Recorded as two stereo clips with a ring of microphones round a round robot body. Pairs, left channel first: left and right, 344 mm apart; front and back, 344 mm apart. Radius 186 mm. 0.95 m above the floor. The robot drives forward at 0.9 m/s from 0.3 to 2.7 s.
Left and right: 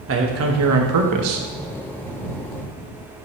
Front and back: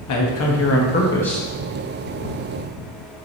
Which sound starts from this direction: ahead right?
A man speaking, at 0.1 s.